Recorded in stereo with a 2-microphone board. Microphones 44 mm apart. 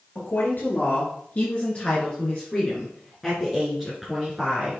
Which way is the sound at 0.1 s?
45° left (ahead or behind).